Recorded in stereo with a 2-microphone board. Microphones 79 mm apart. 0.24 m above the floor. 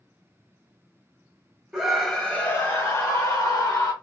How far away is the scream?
About 0.9 m.